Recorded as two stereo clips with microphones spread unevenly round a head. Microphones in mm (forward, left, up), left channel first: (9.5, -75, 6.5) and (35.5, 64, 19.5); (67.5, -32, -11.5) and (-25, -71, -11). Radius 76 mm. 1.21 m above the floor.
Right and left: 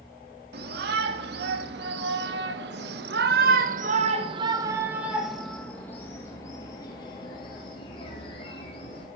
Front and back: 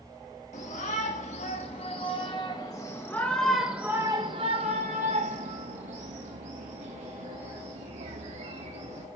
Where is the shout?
70° left, 3 m; by 9.1 s 155° right, 3.5 m.